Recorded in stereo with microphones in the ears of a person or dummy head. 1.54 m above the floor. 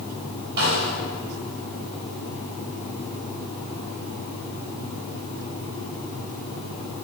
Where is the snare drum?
60° right (ahead or behind), 4 m.